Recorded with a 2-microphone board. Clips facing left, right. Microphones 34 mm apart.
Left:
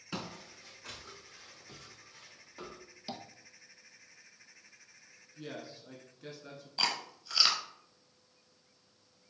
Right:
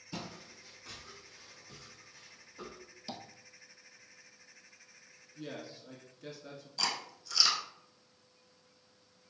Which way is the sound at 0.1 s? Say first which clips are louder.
Left 3 dB; 75° left (ahead or behind).